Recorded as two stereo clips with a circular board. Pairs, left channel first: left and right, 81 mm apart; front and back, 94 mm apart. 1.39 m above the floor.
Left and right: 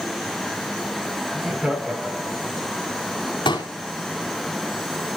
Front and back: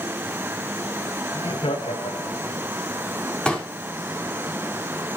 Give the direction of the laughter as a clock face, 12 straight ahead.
12 o'clock.